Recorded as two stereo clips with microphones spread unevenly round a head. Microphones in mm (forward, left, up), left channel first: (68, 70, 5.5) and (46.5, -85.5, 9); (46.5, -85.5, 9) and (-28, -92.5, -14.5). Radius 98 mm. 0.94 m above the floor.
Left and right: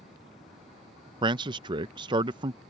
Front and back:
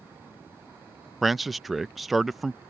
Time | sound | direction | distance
1.2 | a man speaking | 125° right | ?